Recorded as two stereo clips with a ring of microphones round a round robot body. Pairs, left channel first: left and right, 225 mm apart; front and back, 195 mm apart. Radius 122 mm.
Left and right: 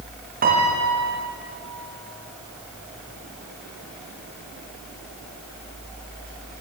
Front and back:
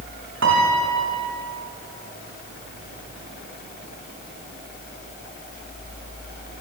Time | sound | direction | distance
0.4 | a piano | 145° right | 5.5 m